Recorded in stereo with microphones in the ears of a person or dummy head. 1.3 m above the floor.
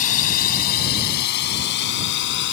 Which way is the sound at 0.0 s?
45° left (ahead or behind).